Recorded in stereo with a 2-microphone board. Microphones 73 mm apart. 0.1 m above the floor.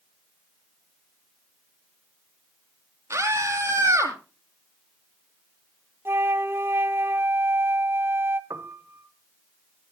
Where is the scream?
40° right (ahead or behind), 4.5 m.